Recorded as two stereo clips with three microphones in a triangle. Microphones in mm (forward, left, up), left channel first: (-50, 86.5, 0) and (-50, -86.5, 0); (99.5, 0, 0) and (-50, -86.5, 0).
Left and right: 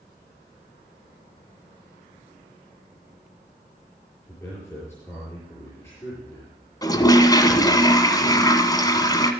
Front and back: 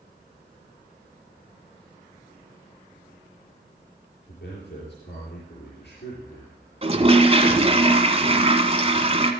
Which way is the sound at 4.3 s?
15° left.